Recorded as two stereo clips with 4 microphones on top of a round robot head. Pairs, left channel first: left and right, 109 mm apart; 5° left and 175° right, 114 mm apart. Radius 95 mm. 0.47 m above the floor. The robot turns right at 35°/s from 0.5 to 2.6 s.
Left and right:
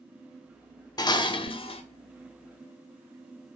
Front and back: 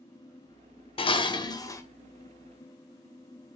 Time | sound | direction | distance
1.0 | dishes clattering | 40° left | 0.7 m